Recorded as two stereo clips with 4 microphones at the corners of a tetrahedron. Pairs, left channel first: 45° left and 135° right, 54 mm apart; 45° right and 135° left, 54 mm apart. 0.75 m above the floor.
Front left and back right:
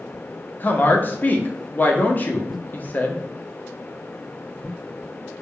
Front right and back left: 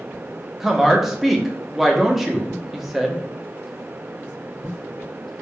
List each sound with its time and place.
0.6 s a woman speaking: 50° left, 0.6 m